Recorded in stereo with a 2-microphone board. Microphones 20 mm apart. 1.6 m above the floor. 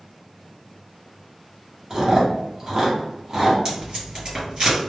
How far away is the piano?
No piano in this recording.